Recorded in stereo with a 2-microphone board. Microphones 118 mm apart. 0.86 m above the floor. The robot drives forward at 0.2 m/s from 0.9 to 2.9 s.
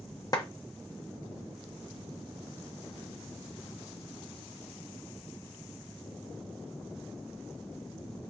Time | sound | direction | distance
0.3 | a clap | 35° left (ahead or behind) | 0.9 m